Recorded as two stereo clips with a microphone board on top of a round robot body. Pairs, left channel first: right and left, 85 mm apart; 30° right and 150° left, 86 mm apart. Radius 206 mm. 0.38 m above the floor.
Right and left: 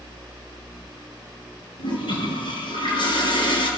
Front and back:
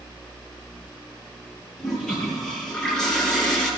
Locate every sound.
1.8 s a toilet flushing: 115° right, 5.5 m